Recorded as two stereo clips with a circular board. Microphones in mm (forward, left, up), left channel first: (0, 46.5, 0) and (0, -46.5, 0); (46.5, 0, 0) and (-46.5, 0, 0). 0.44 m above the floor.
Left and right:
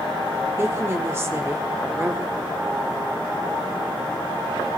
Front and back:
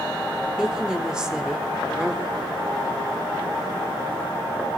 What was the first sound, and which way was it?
A woman speaking, 110° right.